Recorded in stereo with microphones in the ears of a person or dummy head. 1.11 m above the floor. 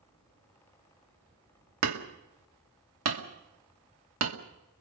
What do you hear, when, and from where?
1.8 s hammering: 85° right, 2 m